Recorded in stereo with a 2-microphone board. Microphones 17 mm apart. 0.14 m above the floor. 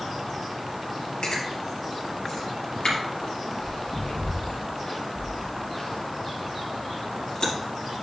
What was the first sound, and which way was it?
Chewing, 60° left (ahead or behind).